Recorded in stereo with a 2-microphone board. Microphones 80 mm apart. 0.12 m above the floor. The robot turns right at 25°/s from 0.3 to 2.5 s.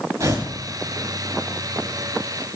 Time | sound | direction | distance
0.2 | tearing paper | 45° right (ahead or behind) | 7 m